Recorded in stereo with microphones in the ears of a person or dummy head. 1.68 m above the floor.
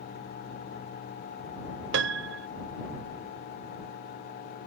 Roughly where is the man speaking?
I don't hear a man speaking.